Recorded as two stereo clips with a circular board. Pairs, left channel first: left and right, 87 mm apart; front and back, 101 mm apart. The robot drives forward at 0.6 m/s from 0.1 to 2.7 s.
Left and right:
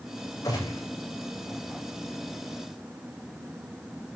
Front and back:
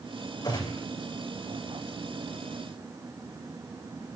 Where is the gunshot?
40° left, 9.5 m.